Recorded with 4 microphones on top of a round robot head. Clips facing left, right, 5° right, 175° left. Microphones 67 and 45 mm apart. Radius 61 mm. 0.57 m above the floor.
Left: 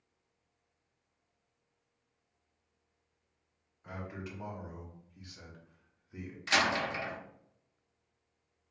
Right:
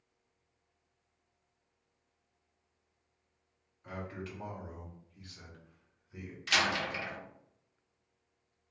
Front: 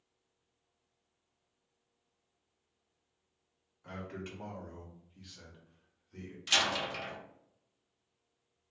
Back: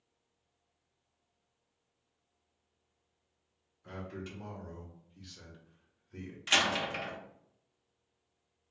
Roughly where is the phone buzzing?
No phone buzzing in this recording.